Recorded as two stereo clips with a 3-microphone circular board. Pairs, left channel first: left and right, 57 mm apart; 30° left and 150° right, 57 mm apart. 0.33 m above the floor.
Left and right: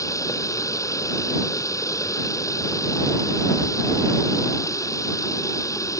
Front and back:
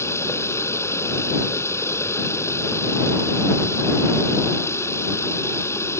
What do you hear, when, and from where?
0.0 s running water: 70° left